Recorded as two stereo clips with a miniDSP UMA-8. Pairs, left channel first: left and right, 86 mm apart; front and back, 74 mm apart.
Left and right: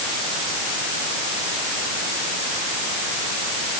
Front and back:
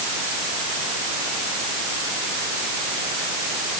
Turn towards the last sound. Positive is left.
No sound to turn to.